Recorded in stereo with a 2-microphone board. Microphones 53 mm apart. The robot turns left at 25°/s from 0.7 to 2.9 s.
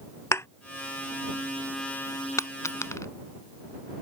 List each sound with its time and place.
0.3 s a thud: 60° left (ahead or behind)
2.4 s a dropped coin: 80° left; by 3.1 s 70° left (ahead or behind)